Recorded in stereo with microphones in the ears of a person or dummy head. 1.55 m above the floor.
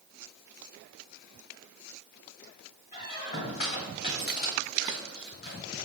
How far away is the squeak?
About 1.9 m.